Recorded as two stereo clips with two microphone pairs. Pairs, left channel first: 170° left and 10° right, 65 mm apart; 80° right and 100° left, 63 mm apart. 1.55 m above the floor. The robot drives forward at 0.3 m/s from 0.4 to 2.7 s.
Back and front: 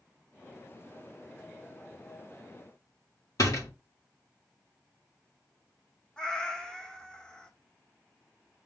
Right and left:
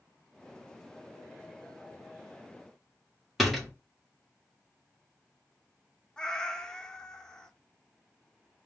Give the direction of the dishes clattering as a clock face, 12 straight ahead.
No dishes clattering in this recording.